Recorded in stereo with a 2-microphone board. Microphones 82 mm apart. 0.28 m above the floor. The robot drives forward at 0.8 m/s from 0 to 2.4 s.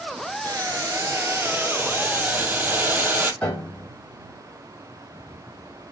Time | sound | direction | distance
0.4 | boiling | 50° right (ahead or behind) | 1.2 m
3.4 | a piano | 15° left (ahead or behind) | 4.5 m